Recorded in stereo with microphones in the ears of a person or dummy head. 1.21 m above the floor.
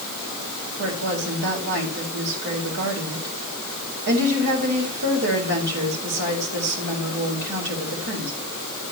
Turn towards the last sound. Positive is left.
turn(degrees=-55)  # may be behind; listen again after turning